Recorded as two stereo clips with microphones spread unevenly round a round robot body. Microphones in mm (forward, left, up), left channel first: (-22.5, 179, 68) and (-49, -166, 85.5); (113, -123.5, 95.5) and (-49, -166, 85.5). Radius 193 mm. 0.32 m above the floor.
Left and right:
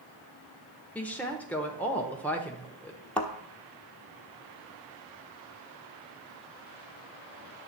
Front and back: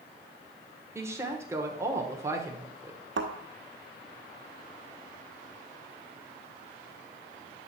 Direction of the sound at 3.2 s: 175° left.